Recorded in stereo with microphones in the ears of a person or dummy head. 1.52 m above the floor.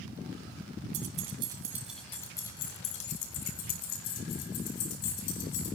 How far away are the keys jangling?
About 0.9 m.